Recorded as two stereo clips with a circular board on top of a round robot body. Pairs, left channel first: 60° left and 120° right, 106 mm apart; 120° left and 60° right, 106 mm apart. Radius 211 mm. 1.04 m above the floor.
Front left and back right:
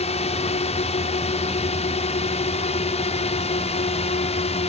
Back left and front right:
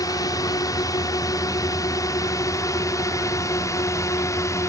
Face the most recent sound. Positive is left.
turn(degrees=60)